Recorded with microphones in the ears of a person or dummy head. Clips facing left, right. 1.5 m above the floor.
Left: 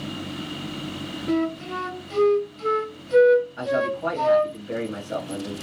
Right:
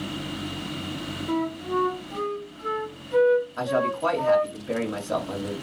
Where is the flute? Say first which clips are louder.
Left 3 dB; 40° left (ahead or behind), 0.6 m.